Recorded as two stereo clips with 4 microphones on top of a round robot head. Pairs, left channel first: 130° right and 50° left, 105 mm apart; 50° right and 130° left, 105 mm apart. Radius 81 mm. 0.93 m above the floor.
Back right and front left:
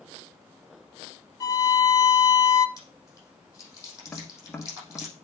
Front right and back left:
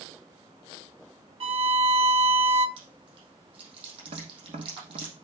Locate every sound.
1.4 s a violin: 170° left, 0.5 m
2.8 s chewing: 170° left, 6 m
4.1 s tapping: 150° left, 1.5 m